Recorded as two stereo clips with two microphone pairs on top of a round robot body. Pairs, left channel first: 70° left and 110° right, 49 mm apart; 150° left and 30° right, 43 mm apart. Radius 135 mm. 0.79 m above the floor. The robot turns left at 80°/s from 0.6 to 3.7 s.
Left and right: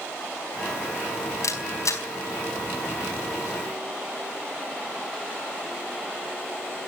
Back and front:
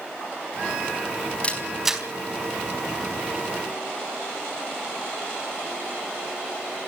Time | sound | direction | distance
1.4 | a camera shutter | 85° left | 4 m